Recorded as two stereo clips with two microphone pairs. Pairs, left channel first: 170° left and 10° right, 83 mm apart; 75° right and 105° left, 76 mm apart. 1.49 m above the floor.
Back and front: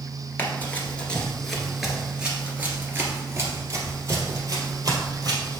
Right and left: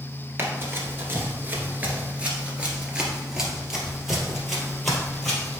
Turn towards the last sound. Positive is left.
turn(degrees=10)